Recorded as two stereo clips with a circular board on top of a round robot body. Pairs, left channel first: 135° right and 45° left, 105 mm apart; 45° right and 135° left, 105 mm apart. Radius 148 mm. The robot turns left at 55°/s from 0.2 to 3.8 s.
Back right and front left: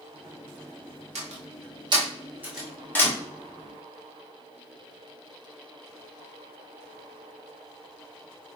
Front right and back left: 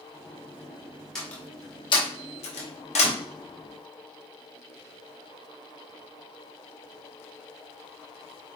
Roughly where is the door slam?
Ahead left.